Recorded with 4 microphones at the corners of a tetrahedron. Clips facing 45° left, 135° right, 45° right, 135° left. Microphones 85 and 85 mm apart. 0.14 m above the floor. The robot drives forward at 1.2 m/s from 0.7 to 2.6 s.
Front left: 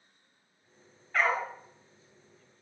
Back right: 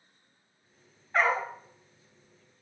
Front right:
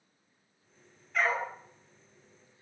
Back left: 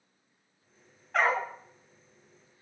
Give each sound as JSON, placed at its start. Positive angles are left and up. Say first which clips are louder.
{"t": 1.1, "sound": "a dog barking", "louder": "back right 2 dB, back left 3 dB", "azimuth_deg": 155, "distance_m": 6.0}